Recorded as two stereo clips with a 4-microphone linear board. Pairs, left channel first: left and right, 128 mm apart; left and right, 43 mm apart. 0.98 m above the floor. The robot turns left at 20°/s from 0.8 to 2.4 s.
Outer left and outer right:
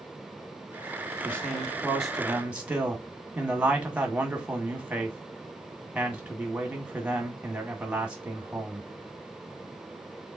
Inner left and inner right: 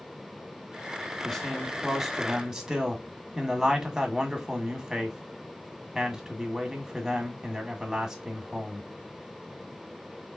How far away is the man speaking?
About 1.6 m.